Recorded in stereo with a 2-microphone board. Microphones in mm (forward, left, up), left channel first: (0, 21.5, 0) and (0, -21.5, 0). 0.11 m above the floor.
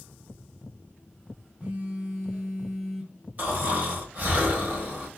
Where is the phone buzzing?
20° right (ahead or behind), 1.6 m.